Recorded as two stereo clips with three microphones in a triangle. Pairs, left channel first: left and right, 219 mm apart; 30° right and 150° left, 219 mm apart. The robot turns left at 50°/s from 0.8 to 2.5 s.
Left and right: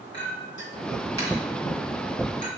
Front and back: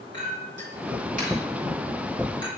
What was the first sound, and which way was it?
A clink, 120° left.